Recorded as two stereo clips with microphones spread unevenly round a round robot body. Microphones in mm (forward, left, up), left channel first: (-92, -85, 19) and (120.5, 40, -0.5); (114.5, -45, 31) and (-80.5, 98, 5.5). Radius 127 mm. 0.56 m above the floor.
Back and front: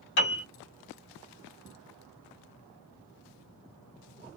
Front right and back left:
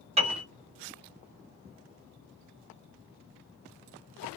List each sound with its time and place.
0.2 s a piano: 165° right, 1.9 m